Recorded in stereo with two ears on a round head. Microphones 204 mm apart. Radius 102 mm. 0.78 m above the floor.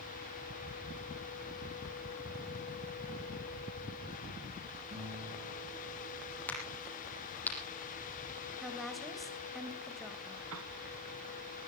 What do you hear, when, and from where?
4.9 s a guitar: 30° right (ahead or behind), 7.5 m
6.5 s a crack: 10° left (ahead or behind), 8 m
8.6 s a woman speaking: centre (ahead or behind), 4 m
10.5 s a piano: 65° right (ahead or behind), 2.0 m